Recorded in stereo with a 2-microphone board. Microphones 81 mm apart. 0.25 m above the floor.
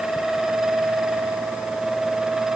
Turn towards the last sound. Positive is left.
No sound to turn to.